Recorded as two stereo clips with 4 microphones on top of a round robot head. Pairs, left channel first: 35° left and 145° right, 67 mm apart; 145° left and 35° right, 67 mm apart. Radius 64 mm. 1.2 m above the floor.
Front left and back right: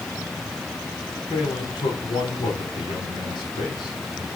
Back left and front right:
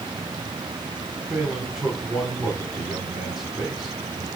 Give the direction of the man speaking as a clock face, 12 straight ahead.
10 o'clock.